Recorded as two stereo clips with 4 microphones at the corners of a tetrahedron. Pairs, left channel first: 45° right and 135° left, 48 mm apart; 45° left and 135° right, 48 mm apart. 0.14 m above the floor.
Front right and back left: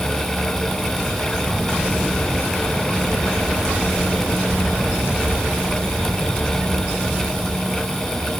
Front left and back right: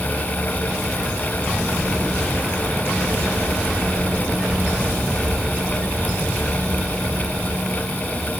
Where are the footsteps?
I don't hear footsteps.